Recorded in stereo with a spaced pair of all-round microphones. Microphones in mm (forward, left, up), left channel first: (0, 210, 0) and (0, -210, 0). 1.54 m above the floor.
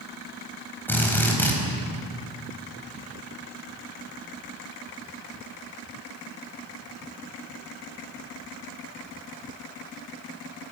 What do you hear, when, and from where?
0.9 s a drill: 5° left (ahead or behind), 4.5 m